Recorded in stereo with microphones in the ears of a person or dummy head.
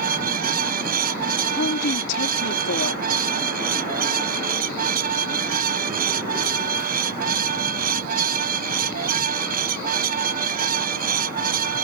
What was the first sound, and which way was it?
A fan, 55° right (ahead or behind).